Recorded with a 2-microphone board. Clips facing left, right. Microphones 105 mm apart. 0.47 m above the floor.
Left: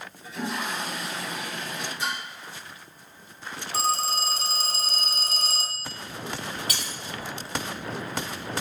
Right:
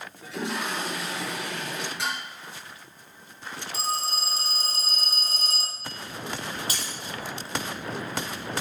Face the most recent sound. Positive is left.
turn(degrees=-30)  # may be behind; listen again after turning